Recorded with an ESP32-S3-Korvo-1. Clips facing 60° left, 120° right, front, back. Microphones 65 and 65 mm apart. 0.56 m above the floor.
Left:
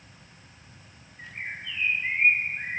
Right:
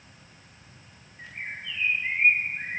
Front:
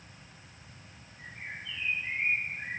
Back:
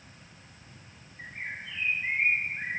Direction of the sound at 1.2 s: 145° left.